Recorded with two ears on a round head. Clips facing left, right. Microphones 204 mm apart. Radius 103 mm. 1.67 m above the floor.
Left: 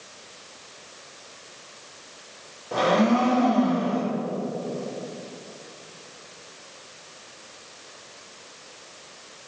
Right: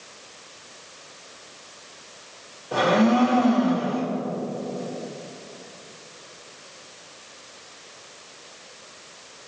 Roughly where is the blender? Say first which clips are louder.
Right 1 dB; centre.